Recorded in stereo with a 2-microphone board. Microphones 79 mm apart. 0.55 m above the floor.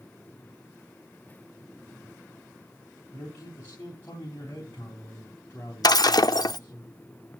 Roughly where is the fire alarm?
I don't hear a fire alarm.